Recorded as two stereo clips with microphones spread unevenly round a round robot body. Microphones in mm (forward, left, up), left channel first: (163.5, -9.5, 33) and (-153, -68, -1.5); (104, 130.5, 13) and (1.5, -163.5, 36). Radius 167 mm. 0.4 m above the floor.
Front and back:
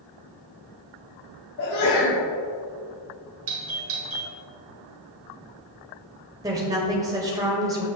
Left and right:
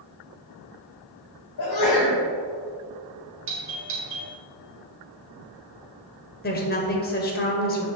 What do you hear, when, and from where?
1.6 s a sneeze: 55° left, 3 m
3.5 s a doorbell: 150° right, 2.0 m
6.4 s a woman speaking: 120° left, 1.7 m